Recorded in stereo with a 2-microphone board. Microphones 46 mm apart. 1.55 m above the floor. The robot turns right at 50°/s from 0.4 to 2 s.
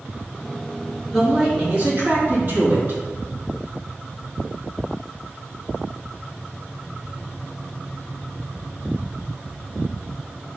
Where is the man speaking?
170° left, 3 m; by 3.0 s 145° right, 3 m.